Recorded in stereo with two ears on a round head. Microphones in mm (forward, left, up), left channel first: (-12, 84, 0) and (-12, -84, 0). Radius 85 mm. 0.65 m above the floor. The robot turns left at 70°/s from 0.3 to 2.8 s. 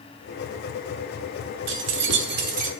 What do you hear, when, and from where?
1.7 s keys jangling: 70° right, 0.7 m; by 2.7 s 145° right, 0.7 m